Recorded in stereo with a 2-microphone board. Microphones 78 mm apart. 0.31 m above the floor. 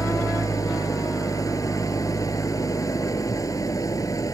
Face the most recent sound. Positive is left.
turn(degrees=45)  # may be behind; listen again after turning